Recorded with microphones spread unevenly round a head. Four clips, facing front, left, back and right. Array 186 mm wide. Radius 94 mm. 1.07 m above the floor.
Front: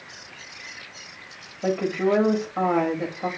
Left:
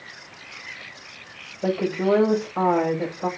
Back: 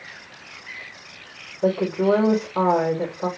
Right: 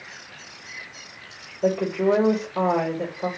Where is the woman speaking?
160° right, 5 m.